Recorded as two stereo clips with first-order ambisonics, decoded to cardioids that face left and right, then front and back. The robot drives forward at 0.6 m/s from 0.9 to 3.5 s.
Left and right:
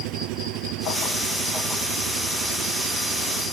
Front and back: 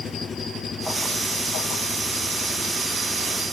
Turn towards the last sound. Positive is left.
turn(degrees=-80)